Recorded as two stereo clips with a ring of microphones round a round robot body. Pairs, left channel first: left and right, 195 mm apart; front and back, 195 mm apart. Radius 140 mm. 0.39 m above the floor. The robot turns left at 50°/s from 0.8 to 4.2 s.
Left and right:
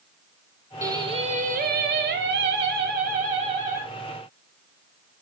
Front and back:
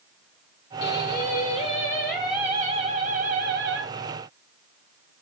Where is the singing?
20° right, 2 m; by 3.9 s 170° right, 2 m.